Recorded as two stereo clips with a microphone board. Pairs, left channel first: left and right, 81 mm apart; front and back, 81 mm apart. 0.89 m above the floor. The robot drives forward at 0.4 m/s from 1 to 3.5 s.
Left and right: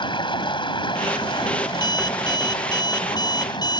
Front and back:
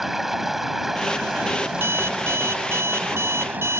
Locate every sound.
0.0 s running water: 95° left; by 3.8 s 110° left
1.7 s an alarm clock: 120° left; by 3.8 s 125° left